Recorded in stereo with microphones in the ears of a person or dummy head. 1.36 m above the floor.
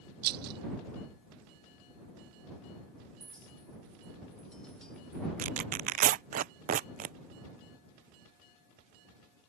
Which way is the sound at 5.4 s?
40° right (ahead or behind).